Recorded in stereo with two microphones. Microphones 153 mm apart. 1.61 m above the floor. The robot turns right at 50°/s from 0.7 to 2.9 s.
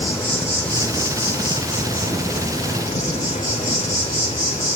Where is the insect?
10° left, 3 m; by 4.8 s 120° left, 3 m.